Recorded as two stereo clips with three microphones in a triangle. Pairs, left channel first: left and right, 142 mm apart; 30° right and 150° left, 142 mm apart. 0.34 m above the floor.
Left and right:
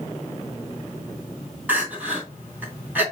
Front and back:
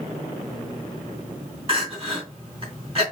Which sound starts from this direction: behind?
Crying, at 1.7 s.